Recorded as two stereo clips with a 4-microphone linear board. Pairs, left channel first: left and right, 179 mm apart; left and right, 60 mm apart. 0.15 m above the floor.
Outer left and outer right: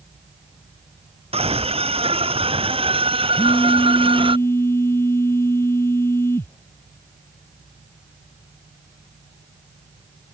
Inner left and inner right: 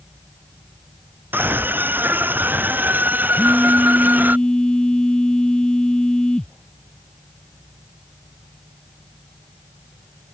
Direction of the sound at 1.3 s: 35° right (ahead or behind).